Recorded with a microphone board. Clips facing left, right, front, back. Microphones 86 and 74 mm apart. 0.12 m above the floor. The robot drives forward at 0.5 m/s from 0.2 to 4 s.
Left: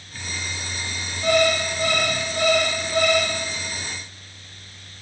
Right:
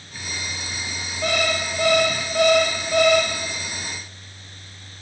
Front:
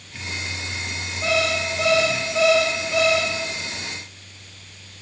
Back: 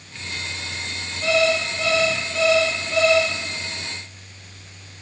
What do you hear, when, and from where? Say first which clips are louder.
1.2 s an alarm clock: left 4 dB, back 3 dB; 70° right, 4.5 m; by 3.3 s 85° right, 4.5 m